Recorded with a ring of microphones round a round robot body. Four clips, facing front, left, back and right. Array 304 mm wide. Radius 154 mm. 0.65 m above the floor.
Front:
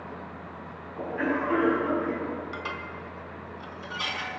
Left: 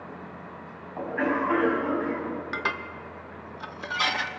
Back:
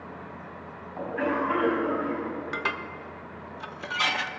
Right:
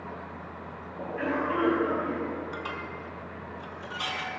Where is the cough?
120° left, 5.5 m.